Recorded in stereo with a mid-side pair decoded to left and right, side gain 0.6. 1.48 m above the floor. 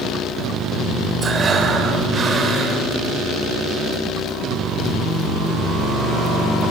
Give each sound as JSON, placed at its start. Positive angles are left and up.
{"t": 1.2, "sound": "breathing", "azimuth_deg": -35, "distance_m": 4.0}